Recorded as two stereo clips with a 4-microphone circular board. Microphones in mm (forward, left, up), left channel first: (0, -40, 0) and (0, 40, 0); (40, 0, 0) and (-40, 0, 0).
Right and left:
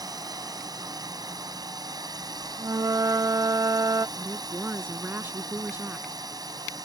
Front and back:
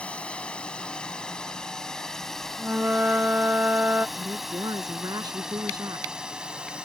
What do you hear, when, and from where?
0.0 s a drone: 70° left; by 6.8 s 105° left
2.6 s a flute: 115° left
4.2 s a woman speaking: 150° left